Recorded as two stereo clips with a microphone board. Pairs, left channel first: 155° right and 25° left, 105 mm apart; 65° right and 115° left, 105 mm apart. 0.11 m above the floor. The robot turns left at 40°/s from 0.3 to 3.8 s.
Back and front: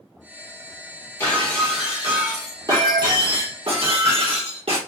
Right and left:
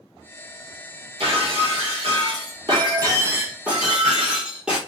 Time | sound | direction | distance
1.2 | breaking glass | 135° left | 1.3 m